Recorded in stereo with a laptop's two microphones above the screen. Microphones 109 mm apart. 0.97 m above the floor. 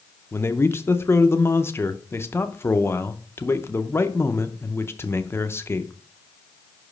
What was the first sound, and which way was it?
A man speaking, 25° left (ahead or behind).